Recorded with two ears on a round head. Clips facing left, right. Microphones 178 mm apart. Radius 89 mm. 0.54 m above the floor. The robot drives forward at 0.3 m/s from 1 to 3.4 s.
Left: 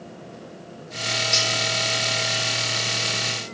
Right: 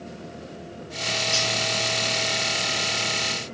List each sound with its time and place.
1.3 s cutlery clinking: 15° left (ahead or behind), 0.6 m; by 1.5 s 20° left (ahead or behind), 0.6 m